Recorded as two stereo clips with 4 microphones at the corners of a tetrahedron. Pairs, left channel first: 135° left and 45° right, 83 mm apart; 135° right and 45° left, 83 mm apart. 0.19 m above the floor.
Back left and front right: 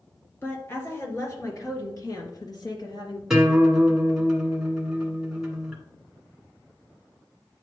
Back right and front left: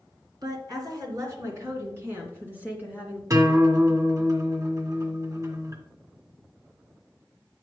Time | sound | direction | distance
0.4 | a woman speaking | 75° left | 3 m
3.3 | a guitar | 40° left | 1.7 m